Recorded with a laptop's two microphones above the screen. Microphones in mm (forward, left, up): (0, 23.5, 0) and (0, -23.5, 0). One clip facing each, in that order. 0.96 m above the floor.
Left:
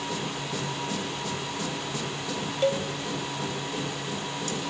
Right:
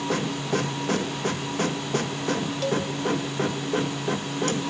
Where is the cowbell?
25° left (ahead or behind), 0.9 m.